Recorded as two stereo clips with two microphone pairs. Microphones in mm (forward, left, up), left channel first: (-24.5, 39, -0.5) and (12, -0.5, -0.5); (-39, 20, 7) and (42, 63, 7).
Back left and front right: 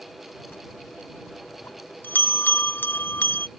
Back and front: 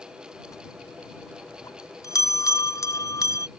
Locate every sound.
0.5 s a bell: 165° left